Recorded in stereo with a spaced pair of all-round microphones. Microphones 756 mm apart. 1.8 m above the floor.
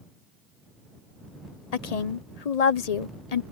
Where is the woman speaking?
60° left (ahead or behind).